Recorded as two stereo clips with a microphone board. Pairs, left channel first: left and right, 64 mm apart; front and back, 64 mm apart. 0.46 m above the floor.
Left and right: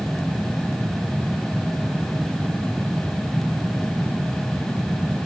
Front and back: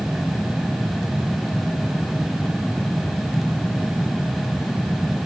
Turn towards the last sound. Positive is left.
No sound to turn to.